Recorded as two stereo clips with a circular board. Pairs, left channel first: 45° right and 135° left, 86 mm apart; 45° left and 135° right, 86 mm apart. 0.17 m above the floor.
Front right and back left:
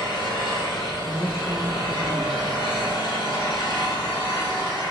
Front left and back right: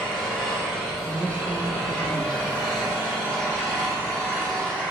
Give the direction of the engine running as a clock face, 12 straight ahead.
1 o'clock.